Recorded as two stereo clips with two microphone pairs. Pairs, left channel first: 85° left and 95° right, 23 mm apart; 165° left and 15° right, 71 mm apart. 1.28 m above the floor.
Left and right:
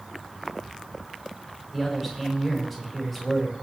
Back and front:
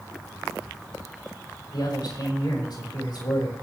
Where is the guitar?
No guitar in this recording.